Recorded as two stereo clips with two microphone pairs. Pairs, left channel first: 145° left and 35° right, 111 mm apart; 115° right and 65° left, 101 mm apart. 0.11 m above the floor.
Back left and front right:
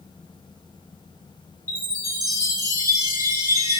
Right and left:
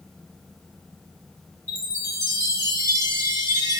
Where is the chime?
15° left, 2.5 m.